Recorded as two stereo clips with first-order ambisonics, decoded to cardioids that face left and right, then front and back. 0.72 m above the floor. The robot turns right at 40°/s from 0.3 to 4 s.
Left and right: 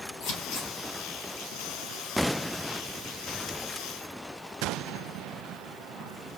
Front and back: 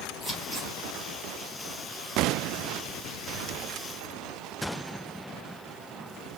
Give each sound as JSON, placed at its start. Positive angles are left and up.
{"t": 0.2, "sound": "scissors", "azimuth_deg": 90, "distance_m": 3.0}